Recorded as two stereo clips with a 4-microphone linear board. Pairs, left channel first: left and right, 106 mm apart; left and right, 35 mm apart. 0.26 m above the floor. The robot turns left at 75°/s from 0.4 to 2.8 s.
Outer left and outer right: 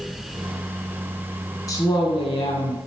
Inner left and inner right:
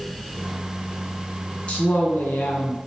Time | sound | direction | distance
1.7 | a woman speaking | 145° left | 3 m